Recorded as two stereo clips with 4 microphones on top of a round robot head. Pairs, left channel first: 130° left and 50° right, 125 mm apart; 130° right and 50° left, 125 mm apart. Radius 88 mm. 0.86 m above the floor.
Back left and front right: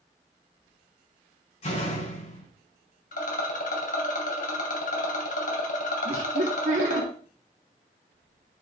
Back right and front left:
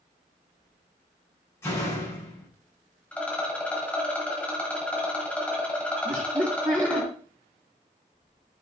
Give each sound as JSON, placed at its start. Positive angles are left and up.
{"t": 1.6, "sound": "a door slam", "azimuth_deg": 160, "distance_m": 7.0}
{"t": 3.1, "sound": "a rattle", "azimuth_deg": 150, "distance_m": 2.5}
{"t": 6.0, "sound": "laughter", "azimuth_deg": -20, "distance_m": 1.9}